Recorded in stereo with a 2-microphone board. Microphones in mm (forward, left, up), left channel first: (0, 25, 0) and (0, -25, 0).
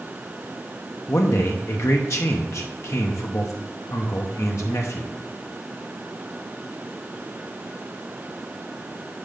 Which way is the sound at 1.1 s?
65° left (ahead or behind).